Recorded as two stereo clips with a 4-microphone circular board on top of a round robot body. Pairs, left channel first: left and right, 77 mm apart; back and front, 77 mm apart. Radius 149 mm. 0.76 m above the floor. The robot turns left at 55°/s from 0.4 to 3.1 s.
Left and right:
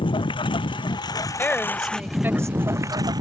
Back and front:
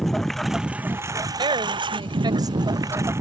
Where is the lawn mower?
95° left; by 3.2 s 55° right.